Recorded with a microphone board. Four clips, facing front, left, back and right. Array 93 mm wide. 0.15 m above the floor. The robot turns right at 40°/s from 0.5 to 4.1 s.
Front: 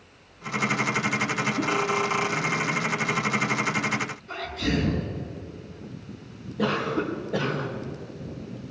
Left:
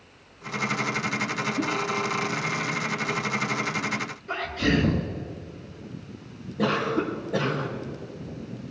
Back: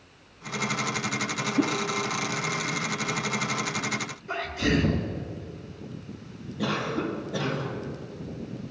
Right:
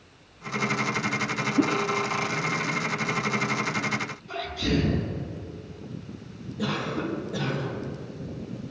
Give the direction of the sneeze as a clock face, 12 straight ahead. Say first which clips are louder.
Left 3 dB, back 4 dB; 8 o'clock.